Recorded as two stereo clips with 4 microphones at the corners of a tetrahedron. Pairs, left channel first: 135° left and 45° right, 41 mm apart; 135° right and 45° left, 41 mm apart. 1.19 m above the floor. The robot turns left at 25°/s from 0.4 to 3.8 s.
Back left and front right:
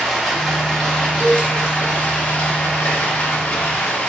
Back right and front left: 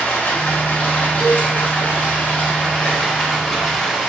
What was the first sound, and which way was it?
Running water, 140° right.